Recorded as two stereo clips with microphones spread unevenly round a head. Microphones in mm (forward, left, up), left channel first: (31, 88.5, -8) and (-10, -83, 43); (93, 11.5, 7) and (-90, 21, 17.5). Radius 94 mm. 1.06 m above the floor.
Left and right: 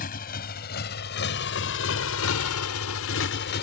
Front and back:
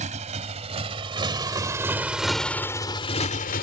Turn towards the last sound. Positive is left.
turn(degrees=40)